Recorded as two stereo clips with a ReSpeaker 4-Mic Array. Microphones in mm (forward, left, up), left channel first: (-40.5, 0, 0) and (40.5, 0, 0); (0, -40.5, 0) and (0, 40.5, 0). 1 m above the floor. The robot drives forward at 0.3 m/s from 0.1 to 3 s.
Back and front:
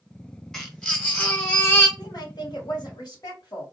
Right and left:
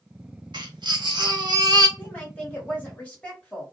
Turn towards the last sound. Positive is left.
turn(degrees=-160)